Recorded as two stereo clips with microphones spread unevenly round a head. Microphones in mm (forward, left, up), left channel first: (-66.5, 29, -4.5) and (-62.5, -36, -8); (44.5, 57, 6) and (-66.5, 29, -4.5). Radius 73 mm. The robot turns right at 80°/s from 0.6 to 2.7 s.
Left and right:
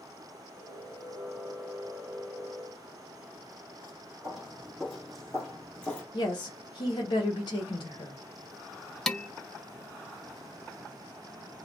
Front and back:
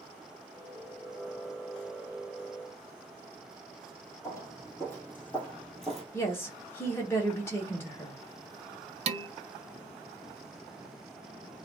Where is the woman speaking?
80° left, 1.0 m.